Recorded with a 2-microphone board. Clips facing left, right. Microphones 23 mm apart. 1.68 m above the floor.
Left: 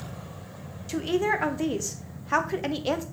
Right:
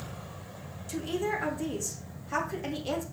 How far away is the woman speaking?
About 1.0 m.